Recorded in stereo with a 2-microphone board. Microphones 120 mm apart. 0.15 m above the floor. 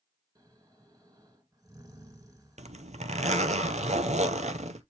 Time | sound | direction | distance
0.3 | snoring | 30° right (ahead or behind) | 1.9 m
2.6 | a zipper | 75° right (ahead or behind) | 0.8 m